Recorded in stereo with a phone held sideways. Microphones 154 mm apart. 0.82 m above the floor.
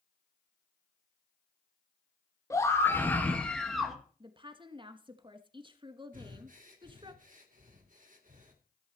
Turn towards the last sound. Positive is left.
turn(degrees=-60)  # may be behind; listen again after turning